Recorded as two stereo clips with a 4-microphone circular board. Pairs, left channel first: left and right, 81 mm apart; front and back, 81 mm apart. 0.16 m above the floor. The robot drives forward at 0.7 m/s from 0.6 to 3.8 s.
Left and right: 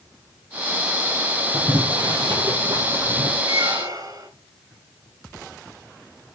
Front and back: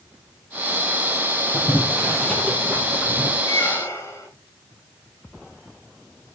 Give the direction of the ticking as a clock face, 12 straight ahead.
I don't hear ticking.